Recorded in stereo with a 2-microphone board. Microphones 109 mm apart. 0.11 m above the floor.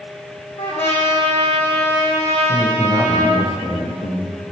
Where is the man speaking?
65° left (ahead or behind), 4 m.